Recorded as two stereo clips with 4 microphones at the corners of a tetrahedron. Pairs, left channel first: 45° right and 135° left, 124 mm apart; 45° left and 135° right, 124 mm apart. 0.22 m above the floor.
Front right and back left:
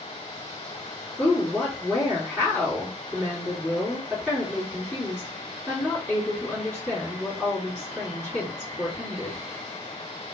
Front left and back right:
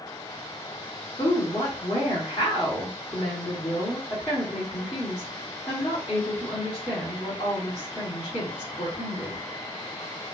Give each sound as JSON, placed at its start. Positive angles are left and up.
{"t": 1.2, "sound": "a woman speaking", "azimuth_deg": 30, "distance_m": 1.9}